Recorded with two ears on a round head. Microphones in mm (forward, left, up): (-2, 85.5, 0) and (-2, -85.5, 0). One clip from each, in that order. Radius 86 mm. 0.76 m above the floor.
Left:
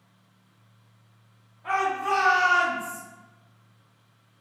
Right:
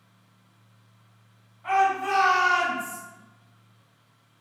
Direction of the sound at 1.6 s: 55° right (ahead or behind).